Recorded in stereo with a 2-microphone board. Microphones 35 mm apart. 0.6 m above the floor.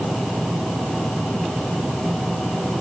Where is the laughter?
I don't hear laughter.